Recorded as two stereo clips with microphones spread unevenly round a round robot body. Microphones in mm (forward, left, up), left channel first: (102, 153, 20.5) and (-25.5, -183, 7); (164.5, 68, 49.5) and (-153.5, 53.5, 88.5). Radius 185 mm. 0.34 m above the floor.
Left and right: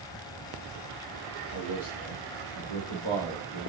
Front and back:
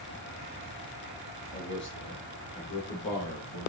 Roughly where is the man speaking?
Ahead left.